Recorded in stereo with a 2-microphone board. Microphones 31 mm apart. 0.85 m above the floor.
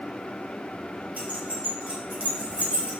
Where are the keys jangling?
80° right, 3.5 m; by 2.9 s 65° right (ahead or behind), 3.5 m.